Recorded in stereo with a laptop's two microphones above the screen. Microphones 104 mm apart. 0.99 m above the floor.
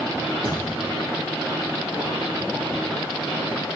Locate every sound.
0.4 s a thud: 55° right (ahead or behind), 2.5 m